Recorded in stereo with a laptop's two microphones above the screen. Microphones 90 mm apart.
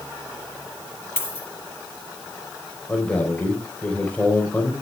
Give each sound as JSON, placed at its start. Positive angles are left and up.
{"t": 1.2, "sound": "a dropped coin", "side_deg": 25, "distance_m": 5.0}
{"t": 2.9, "sound": "a man speaking", "side_deg": 15, "distance_m": 4.0}